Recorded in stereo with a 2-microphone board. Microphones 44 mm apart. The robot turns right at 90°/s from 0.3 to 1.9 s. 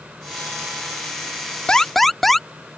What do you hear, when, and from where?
1.7 s an alarm: 20° left (ahead or behind); by 2.5 s 5° left (ahead or behind)